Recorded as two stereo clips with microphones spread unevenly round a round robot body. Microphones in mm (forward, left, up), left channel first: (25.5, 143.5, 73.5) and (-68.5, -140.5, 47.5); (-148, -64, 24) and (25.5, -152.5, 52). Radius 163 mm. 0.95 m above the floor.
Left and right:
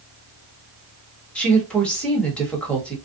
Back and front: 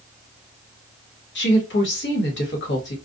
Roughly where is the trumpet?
No trumpet in this recording.